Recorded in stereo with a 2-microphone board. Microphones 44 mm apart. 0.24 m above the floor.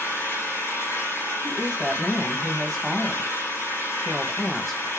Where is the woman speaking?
Centre (ahead or behind), 1.3 m.